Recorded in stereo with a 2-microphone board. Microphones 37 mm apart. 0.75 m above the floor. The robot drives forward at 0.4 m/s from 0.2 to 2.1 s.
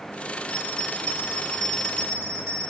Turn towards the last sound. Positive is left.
turn(degrees=15)  # may be behind; listen again after turning